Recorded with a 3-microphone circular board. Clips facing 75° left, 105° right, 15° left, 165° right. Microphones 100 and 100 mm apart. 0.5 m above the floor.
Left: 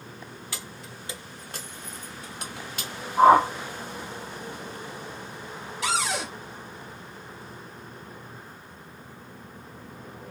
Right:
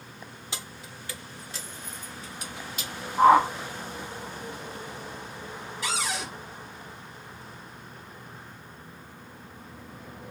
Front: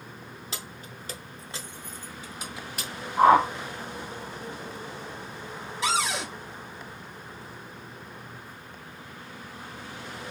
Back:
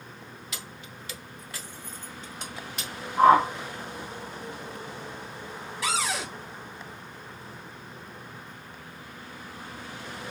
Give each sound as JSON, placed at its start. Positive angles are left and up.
{"t": 0.5, "sound": "keys jangling", "azimuth_deg": -40, "distance_m": 0.8}
{"t": 3.2, "sound": "a whoosh", "azimuth_deg": 70, "distance_m": 2.0}
{"t": 5.8, "sound": "a cupboard door", "azimuth_deg": 80, "distance_m": 1.8}